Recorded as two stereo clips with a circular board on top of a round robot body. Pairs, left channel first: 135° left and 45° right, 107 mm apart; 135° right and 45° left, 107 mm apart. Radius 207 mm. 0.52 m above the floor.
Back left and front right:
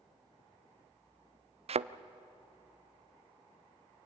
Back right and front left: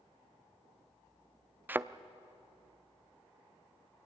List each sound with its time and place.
1.7 s a thud: 25° right, 0.5 m